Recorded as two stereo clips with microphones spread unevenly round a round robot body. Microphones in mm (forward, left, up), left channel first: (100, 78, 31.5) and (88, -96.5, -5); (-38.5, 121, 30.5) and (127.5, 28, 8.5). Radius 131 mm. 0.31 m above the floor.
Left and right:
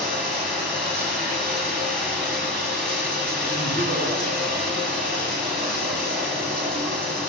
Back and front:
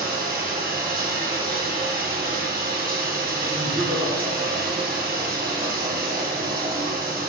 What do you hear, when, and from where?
0.0 s running water: 5° right, 2 m
3.5 s laughter: 85° right, 1.9 m